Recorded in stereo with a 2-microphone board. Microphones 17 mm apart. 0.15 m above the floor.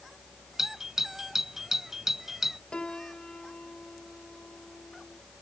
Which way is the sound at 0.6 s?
25° right (ahead or behind).